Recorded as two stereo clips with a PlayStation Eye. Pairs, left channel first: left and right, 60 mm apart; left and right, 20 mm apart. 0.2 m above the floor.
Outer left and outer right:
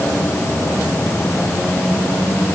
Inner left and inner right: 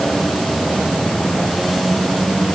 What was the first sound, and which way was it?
Only background noise.